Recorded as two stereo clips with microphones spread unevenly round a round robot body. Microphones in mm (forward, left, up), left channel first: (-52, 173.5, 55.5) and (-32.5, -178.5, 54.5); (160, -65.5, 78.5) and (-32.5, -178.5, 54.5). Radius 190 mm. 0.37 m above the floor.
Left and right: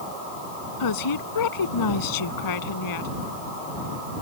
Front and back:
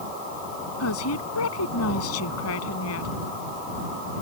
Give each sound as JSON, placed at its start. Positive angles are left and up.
{"t": 0.8, "sound": "a woman speaking", "azimuth_deg": 60}